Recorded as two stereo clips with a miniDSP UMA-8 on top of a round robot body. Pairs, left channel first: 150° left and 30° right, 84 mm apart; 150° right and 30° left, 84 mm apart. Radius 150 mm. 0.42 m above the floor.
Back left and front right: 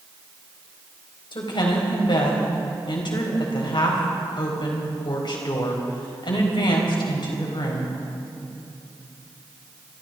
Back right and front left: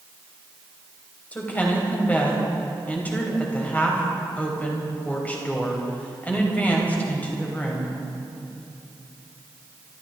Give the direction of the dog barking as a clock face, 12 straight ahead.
No dog barking in this recording.